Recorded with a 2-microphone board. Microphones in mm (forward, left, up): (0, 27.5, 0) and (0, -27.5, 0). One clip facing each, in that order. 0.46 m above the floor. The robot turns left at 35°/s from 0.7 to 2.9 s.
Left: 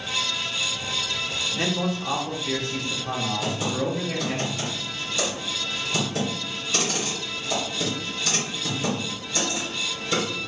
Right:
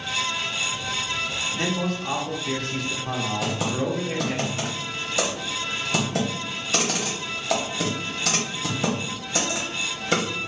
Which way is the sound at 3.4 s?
75° right (ahead or behind).